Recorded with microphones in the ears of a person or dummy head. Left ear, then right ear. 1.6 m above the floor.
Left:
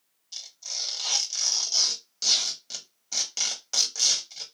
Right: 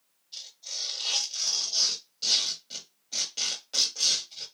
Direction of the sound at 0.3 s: 55° left (ahead or behind).